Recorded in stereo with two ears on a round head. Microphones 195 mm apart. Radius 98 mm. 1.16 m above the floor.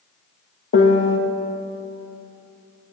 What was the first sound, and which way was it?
A piano, 55° left (ahead or behind).